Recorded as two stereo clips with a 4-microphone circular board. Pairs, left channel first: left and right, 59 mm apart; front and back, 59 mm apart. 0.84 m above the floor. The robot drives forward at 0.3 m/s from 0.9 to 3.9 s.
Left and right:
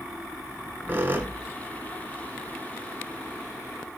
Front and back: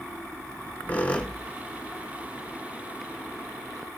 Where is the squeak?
50° right, 0.9 m; by 2.6 s 105° right, 0.9 m.